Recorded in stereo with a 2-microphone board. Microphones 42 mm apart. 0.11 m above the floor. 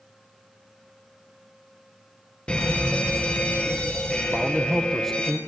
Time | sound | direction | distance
2.5 | a fire alarm | 25° left (ahead or behind) | 4 m
4.3 | a man speaking | 10° left (ahead or behind) | 2.0 m